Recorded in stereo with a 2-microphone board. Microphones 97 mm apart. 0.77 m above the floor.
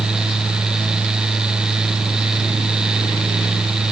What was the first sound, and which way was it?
Only background noise.